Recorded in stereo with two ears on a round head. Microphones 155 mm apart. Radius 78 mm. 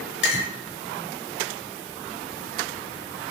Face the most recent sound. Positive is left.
turn(degrees=65)  # may be behind; listen again after turning